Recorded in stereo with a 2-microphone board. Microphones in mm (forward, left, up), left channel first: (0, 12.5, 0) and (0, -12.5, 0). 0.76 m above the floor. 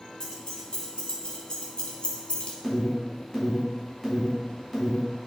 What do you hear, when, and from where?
0.2 s keys jangling: 25° left (ahead or behind), 2.5 m; by 2.5 s 50° left (ahead or behind), 0.9 m
2.6 s an alarm: centre (ahead or behind), 4 m